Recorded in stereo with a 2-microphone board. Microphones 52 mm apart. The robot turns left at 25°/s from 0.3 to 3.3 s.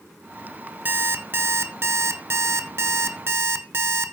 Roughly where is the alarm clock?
Ahead right.